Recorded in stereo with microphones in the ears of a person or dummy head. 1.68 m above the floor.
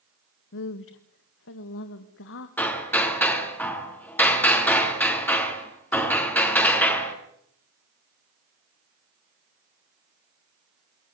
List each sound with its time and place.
0.5 s a woman speaking: 65° left (ahead or behind), 1.0 m; by 2.5 s 75° left (ahead or behind), 2.5 m
2.6 s hammering: 10° left (ahead or behind), 4.5 m